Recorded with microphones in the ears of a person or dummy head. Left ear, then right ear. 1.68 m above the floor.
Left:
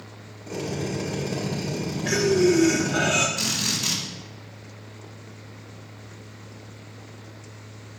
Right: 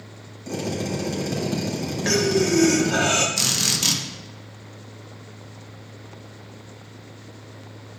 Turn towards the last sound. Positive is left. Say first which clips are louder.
# right 4 dB
turn(degrees=-85)